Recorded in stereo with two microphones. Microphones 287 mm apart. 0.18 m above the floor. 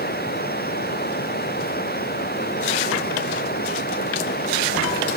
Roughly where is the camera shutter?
I don't hear a camera shutter.